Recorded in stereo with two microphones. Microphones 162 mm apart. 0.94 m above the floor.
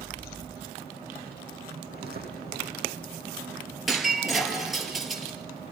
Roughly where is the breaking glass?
Centre.